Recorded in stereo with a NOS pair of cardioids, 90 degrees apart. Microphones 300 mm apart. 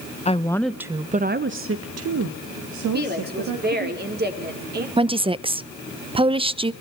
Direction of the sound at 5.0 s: 20° right.